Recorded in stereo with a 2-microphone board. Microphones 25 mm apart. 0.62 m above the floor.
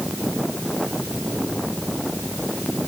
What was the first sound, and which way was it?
Only background noise.